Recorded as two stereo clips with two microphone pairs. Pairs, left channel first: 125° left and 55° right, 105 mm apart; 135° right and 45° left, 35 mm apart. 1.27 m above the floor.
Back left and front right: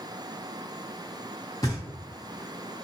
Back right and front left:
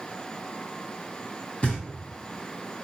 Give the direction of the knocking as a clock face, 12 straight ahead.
6 o'clock.